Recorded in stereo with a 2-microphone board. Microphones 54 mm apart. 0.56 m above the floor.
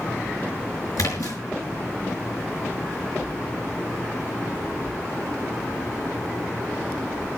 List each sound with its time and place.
1.0 s a splash: 85° left, 5.5 m